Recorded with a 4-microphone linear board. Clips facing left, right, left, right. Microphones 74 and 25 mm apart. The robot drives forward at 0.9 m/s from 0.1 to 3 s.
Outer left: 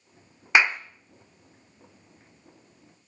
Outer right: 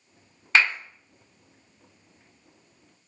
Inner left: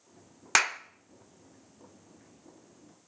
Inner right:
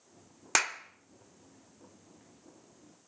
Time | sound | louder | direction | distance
0.6 | a clap | outer left 1 dB, inner left 4 dB | 20° left (ahead or behind) | 0.7 m